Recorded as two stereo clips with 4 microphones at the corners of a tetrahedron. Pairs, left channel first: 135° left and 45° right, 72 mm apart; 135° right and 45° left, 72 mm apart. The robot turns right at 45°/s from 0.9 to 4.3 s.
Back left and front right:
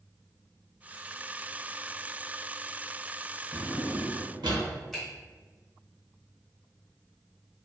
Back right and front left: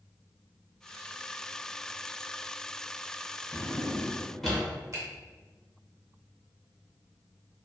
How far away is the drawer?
About 0.7 m.